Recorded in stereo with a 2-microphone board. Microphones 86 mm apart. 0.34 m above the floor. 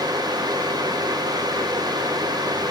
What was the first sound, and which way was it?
Only background noise.